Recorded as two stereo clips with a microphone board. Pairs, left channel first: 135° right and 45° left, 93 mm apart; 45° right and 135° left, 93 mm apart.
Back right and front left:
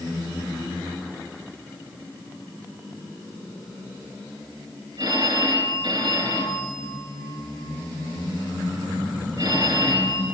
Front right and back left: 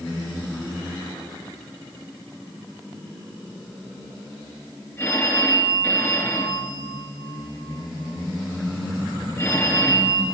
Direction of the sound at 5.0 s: 20° left.